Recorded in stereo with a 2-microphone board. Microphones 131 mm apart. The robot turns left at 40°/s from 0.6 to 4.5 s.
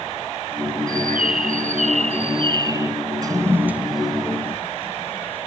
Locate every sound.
0.9 s a bird: 80° right; by 2.9 s 160° right
3.2 s a toilet flushing: 30° right (ahead or behind); by 5.5 s 15° left (ahead or behind)